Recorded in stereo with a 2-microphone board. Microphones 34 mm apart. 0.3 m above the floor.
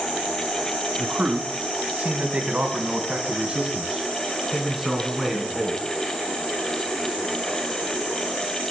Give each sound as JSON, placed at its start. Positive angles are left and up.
{"t": 1.0, "sound": "a man speaking", "side_deg": -55, "distance_m": 2.5}